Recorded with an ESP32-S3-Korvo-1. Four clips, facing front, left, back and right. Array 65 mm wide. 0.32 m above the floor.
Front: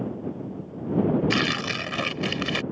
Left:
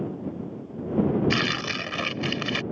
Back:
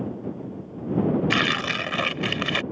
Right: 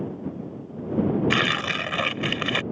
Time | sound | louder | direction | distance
1.3 | tearing paper | right 3 dB, back 2 dB | 130° right | ?